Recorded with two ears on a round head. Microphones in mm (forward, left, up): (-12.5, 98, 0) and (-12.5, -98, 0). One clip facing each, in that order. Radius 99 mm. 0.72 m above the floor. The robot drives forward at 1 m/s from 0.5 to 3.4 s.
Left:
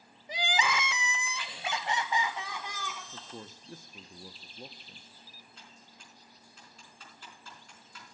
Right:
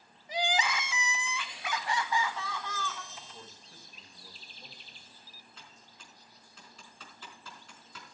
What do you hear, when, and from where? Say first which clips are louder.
0.3 s crying: even; 60° left (ahead or behind), 0.6 m; by 3.0 s 10° left (ahead or behind), 2.5 m
3.1 s a man speaking: left 5 dB; 45° left (ahead or behind), 0.7 m; by 5.1 s 40° left (ahead or behind), 0.7 m
5.6 s typing on a keyboard: even; 60° right (ahead or behind), 5 m